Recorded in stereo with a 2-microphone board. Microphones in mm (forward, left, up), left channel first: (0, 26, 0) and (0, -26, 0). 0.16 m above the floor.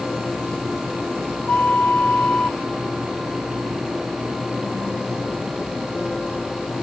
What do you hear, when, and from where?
1.5 s a flute: 40° left (ahead or behind), 0.6 m